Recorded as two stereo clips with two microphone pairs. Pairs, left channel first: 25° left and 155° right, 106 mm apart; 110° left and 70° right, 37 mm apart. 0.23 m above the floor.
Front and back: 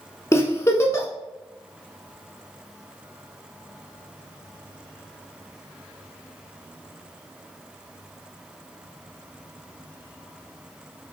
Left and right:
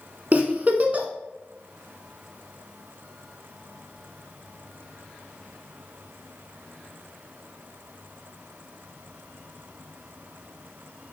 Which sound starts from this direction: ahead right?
A giggle, at 0.3 s.